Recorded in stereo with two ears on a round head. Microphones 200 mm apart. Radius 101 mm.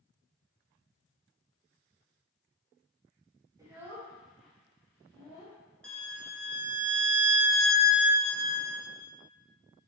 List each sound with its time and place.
3.6 s a child speaking: 15° right (ahead or behind), 1.4 m; by 5.6 s 20° left (ahead or behind), 2.0 m
5.8 s a violin: 5° left (ahead or behind), 0.5 m